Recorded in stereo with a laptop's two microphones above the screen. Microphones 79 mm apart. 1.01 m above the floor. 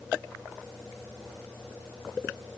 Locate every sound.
Only background noise.